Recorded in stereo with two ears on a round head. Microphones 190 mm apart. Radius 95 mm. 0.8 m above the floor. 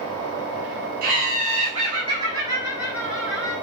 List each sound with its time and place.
1.0 s laughter: 45° right (ahead or behind), 3 m; by 3.5 s 5° left (ahead or behind), 3 m